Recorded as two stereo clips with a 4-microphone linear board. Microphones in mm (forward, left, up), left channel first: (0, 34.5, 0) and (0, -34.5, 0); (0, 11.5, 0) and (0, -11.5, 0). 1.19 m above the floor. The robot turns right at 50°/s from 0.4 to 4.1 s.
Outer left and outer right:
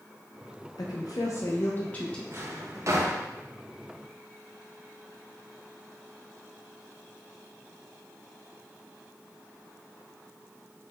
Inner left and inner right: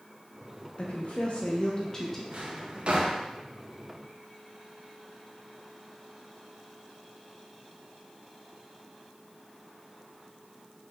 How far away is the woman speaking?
About 0.5 m.